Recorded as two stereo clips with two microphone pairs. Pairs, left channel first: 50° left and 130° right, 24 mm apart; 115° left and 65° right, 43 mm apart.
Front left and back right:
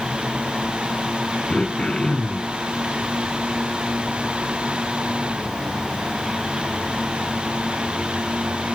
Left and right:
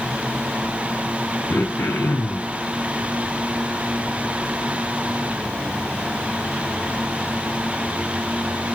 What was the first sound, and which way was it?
Throat clearing, 105° left.